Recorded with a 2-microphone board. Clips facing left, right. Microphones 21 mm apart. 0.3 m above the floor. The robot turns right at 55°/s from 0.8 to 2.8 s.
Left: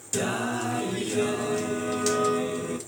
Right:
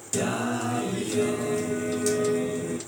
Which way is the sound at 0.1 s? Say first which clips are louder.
Right 1 dB; straight ahead.